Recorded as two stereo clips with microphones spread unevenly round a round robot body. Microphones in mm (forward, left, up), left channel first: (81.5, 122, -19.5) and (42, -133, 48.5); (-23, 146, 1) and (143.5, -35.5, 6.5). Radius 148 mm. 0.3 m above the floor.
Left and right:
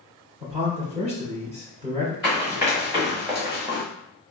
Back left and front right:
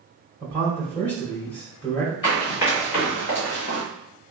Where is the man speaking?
160° right, 1.1 m.